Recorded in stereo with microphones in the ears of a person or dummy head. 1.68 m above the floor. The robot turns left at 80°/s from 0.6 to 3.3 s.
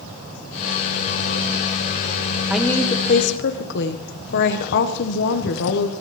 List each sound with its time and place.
2.5 s a woman speaking: 175° right, 1.5 m; by 5.9 s 120° left, 1.5 m